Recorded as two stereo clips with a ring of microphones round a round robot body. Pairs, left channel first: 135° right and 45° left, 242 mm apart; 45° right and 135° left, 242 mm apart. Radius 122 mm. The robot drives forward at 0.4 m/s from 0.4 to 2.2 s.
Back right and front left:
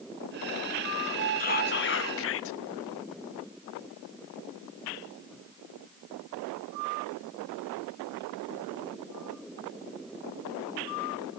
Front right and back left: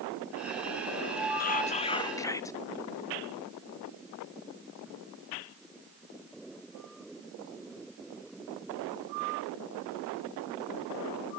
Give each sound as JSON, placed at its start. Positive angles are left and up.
{"t": 1.4, "sound": "whispering", "azimuth_deg": -90, "distance_m": 0.7}